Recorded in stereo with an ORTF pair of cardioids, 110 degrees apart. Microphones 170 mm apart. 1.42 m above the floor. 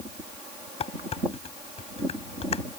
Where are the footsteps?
No footsteps in this recording.